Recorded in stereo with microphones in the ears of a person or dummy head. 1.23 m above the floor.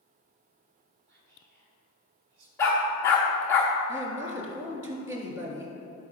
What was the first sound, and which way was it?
Whispering, 60° right (ahead or behind).